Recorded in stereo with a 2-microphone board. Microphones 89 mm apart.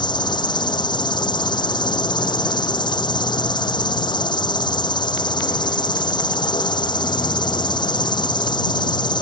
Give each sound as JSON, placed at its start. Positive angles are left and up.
{"t": 0.0, "sound": "an insect", "side_deg": 60}